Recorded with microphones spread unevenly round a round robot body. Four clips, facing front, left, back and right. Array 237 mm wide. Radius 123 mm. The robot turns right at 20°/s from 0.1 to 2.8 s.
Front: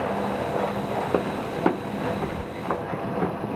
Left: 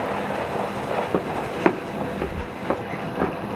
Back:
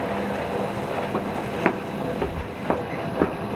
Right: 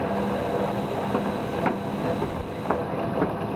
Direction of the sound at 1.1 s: 50° left.